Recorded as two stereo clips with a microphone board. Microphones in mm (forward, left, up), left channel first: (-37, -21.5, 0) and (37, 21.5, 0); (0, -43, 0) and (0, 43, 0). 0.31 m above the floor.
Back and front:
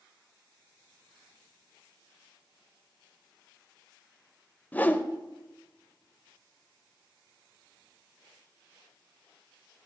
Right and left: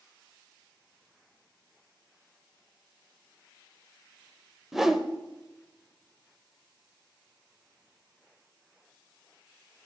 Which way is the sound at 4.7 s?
170° left.